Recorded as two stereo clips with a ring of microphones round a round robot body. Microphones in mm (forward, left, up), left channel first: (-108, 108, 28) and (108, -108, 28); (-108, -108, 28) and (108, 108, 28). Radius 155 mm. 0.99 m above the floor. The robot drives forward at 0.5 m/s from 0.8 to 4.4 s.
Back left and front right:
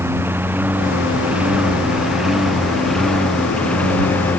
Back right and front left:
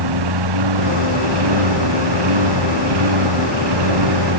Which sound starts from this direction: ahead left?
A lawn mower, at 0.0 s.